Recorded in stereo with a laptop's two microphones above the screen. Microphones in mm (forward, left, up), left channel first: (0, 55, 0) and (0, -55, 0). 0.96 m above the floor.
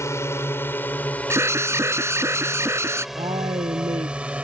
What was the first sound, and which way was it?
A drone, 25° left (ahead or behind).